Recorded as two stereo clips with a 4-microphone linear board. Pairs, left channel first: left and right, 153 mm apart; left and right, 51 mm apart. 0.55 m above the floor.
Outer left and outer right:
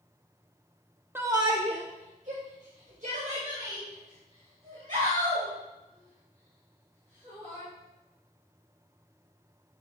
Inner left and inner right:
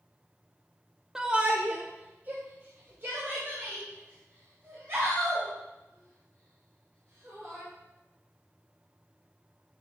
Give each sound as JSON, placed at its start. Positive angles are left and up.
{"t": 1.1, "sound": "a shout", "side_deg": -15, "distance_m": 0.7}